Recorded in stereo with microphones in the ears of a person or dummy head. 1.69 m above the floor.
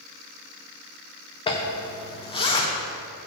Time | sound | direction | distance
1.5 | a zipper | 30° left (ahead or behind) | 0.9 m